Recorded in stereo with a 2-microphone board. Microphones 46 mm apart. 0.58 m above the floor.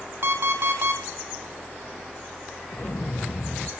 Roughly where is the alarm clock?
Right.